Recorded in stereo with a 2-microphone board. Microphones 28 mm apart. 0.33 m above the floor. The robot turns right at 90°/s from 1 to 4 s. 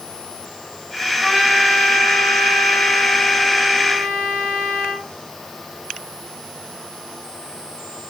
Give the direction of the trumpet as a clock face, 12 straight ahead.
1 o'clock.